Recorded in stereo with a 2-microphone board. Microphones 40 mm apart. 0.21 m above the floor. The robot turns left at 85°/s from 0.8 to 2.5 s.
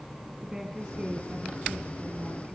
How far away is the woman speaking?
About 2.5 m.